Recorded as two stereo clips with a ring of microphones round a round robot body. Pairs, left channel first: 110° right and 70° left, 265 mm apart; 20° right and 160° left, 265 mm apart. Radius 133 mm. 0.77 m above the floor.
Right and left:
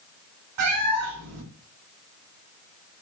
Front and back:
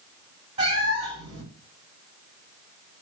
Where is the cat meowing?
90° left, 2.5 m.